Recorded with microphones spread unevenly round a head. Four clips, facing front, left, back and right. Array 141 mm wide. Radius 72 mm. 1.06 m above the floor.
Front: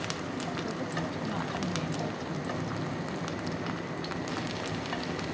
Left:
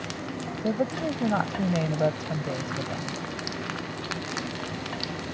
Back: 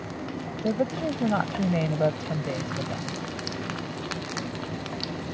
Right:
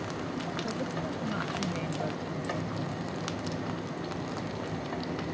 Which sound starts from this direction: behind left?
A woman speaking, at 0.6 s.